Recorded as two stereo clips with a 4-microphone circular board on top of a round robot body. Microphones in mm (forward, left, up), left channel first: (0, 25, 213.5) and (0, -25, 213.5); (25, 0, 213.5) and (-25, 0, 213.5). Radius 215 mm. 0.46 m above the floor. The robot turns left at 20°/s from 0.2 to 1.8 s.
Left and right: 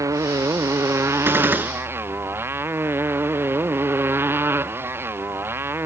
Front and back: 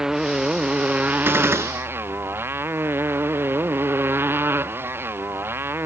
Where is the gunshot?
135° right; by 1.7 s 145° right.